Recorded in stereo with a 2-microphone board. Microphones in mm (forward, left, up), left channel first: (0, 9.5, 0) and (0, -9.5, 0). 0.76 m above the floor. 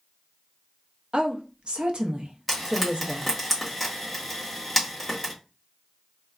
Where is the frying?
5° left (ahead or behind), 1.2 m.